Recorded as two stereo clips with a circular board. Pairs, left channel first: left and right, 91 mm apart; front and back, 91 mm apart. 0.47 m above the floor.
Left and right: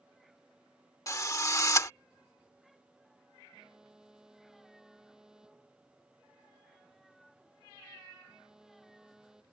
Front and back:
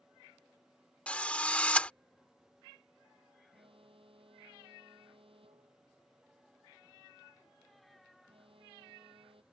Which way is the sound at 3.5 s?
175° right.